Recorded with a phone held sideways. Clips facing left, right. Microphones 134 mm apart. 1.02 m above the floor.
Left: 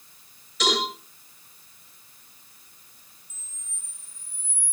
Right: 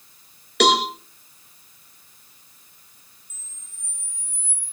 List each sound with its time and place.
0.6 s a cowbell: 70° right (ahead or behind), 6 m
3.3 s a camera shutter: 25° right (ahead or behind), 0.8 m